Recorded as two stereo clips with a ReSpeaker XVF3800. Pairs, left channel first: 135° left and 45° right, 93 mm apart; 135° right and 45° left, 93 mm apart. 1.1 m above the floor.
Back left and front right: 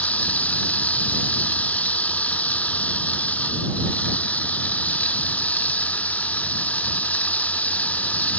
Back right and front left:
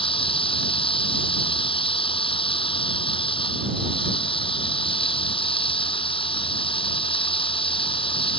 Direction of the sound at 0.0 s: 150° right.